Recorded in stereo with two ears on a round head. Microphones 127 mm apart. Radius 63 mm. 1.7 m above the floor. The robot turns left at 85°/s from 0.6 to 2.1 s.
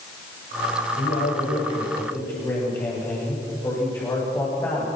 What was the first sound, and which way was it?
A man speaking, 120° left.